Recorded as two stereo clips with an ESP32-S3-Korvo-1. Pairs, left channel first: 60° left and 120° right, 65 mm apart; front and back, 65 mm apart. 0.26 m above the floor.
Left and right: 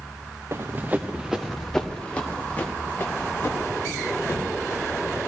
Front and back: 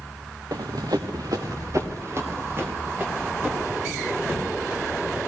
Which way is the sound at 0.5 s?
165° right.